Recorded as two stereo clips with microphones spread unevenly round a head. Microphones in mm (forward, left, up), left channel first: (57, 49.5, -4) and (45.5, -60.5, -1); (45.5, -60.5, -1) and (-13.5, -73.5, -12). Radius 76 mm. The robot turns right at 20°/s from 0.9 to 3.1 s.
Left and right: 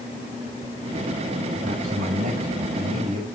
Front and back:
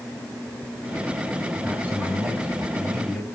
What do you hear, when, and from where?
1.6 s a man speaking: 100° right, 7 m; by 3.3 s 70° right, 7 m